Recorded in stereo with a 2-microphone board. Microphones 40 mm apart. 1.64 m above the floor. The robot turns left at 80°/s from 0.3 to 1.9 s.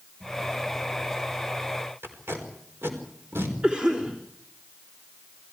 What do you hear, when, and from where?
2.0 s tape being pulled: 85° right, 4.5 m
3.6 s a cough: 25° right (ahead or behind), 4 m